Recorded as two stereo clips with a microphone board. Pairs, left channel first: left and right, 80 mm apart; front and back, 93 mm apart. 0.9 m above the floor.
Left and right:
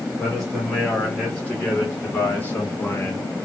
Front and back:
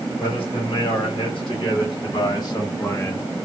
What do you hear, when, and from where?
0.2 s a man speaking: 10° left, 2 m; by 3.3 s 55° left, 1.1 m